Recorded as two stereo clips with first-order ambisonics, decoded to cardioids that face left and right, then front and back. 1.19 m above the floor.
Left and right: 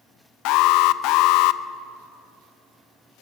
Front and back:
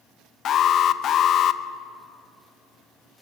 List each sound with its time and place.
0.5 s an alarm: 55° left, 0.7 m